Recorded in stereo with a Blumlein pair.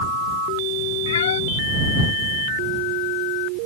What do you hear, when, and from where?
1.1 s a cat meowing: 65° left